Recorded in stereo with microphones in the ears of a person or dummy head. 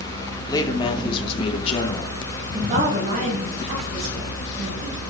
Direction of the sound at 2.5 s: 40° right (ahead or behind).